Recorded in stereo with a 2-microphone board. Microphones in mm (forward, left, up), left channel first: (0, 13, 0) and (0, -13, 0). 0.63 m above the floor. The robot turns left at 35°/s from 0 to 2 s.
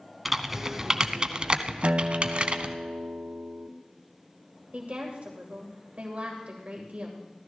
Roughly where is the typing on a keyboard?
Centre.